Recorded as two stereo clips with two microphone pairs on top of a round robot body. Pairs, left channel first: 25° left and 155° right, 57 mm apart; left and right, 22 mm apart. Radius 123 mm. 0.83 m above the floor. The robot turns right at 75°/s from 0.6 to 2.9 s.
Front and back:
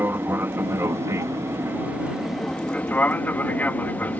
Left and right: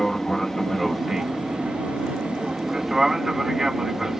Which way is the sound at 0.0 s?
160° left.